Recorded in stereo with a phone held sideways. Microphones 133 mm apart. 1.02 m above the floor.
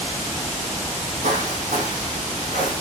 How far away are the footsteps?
About 2 m.